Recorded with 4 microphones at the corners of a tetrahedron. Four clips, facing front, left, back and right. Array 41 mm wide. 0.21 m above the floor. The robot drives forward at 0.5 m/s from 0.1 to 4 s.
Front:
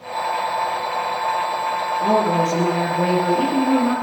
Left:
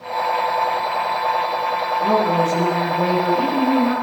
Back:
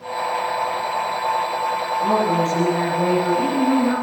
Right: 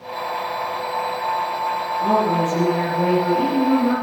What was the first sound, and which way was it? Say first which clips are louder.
A woman speaking: even, front 1 dB; 5° right.